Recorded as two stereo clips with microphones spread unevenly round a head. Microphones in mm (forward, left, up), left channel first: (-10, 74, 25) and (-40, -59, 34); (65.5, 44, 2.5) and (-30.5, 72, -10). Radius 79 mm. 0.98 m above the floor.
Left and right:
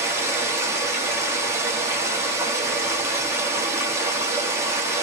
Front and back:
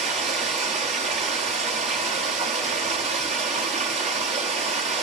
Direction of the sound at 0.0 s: 175° right.